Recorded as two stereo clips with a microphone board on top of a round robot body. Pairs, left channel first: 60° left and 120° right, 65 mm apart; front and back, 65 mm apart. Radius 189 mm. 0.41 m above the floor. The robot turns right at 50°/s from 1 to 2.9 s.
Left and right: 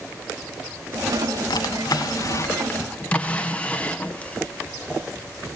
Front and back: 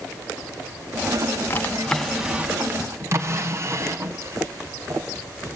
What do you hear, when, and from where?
1.5 s a drawer: 60° left, 1.4 m; by 5.0 s 130° left, 1.4 m